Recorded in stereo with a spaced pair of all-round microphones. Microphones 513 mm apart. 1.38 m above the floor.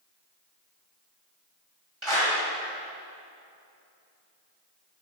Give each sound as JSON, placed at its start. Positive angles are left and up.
{"t": 2.0, "sound": "a clap", "side_deg": -70, "distance_m": 6.5}